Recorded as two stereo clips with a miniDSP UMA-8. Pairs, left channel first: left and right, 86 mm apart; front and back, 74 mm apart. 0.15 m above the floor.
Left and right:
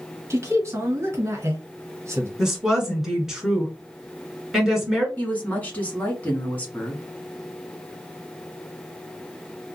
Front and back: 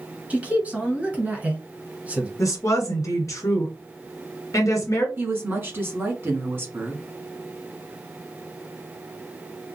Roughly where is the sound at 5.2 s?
Behind left.